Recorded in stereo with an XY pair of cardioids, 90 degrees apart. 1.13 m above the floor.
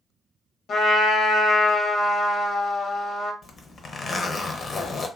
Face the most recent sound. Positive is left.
turn(degrees=50)